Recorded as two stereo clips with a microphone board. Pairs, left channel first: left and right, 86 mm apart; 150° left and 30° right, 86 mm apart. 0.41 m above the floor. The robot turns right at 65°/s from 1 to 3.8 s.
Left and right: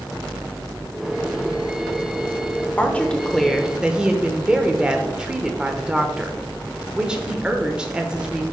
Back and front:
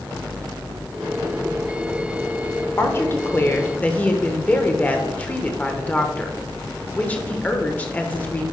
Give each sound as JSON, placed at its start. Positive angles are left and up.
{"t": 2.8, "sound": "a woman speaking", "azimuth_deg": 130, "distance_m": 0.8}